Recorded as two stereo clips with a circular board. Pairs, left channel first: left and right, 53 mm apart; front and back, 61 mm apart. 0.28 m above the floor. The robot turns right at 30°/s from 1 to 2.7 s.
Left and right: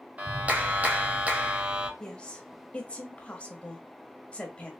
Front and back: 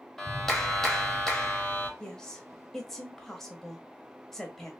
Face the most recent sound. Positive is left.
turn(degrees=75)